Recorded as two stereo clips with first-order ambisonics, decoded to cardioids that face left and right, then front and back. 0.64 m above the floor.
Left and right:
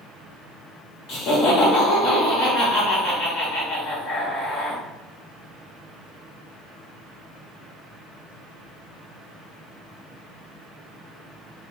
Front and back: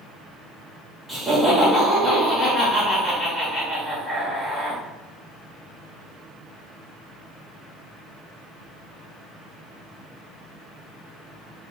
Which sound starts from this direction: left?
Laughter, at 1.1 s.